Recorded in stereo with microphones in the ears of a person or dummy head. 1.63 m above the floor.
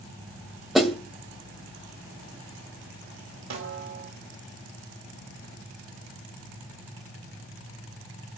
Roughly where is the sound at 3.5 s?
Right.